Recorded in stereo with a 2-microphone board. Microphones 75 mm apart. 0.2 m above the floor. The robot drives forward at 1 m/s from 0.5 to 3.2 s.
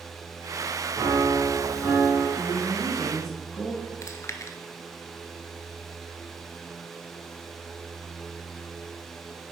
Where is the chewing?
40° left (ahead or behind), 0.6 m.